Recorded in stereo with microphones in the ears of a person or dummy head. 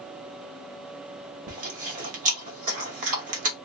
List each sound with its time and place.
1.5 s chewing: 40° right (ahead or behind), 0.8 m